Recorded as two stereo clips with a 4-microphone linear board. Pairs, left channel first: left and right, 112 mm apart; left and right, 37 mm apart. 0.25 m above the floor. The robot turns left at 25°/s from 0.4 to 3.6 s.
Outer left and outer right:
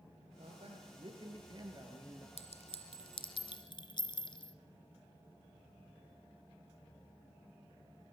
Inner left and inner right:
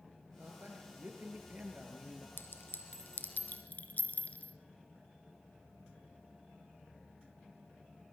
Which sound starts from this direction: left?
A clink, at 2.4 s.